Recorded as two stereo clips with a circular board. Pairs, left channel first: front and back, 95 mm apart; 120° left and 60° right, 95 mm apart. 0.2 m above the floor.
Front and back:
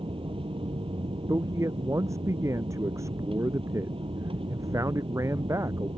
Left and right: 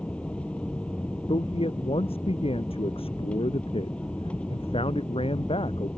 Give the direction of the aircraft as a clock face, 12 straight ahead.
5 o'clock.